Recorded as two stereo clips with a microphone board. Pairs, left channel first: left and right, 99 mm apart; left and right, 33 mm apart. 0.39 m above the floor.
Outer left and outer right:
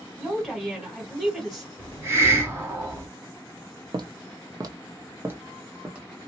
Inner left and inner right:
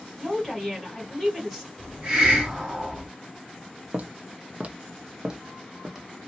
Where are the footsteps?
45° right (ahead or behind), 0.5 m; by 6.0 s 10° right (ahead or behind), 1.0 m.